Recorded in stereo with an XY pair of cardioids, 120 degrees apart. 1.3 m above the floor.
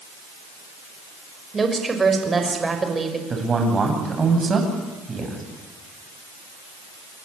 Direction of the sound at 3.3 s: 30° right.